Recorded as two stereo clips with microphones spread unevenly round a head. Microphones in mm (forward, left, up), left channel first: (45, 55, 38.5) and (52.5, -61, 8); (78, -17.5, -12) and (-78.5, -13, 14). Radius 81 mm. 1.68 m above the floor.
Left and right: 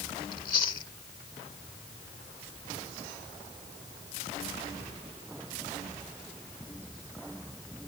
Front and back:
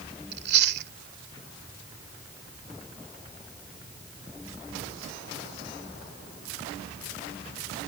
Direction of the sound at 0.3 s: 150° left.